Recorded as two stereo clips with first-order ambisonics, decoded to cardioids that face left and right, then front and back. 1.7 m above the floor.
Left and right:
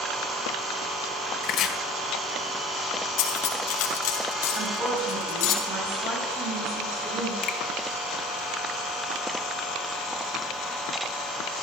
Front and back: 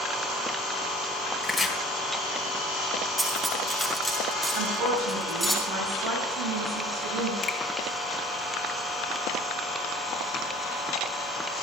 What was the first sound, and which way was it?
Chopping, 90° left.